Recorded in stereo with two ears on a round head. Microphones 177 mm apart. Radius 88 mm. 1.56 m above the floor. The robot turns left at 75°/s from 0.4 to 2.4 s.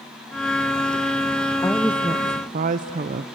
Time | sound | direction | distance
1.6 | a woman speaking | 15° left | 0.6 m